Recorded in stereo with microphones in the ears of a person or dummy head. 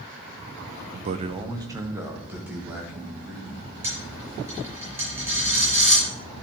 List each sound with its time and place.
0.9 s a man speaking: 50° right (ahead or behind), 0.6 m; by 3.7 s 5° right (ahead or behind), 3 m
3.8 s a dropped coin: 15° right (ahead or behind), 5 m